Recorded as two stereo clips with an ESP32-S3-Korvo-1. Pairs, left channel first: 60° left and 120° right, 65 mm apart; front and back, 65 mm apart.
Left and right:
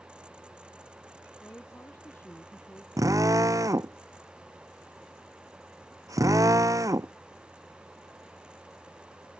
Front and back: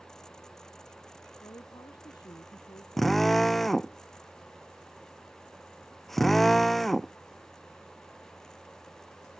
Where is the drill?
90° right.